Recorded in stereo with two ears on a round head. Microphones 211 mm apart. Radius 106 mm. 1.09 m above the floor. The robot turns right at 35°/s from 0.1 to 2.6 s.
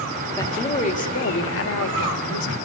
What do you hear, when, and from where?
0.4 s a woman speaking: 15° left, 1.6 m; by 2.5 s 90° left, 1.6 m